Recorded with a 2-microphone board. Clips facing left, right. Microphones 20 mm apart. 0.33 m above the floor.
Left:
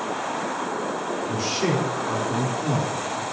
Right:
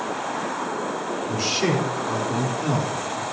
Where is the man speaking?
15° right (ahead or behind), 3.5 m.